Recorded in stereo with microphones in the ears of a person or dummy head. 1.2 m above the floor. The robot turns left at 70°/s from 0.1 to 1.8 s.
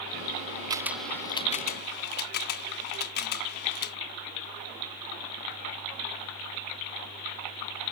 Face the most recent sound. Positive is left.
turn(degrees=60)  # may be behind; listen again after turning